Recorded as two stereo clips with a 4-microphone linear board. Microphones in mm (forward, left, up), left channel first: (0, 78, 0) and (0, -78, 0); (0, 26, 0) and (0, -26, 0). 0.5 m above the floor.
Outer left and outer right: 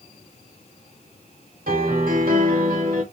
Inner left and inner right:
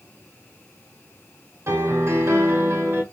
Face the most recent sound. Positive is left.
turn(degrees=-65)  # may be behind; listen again after turning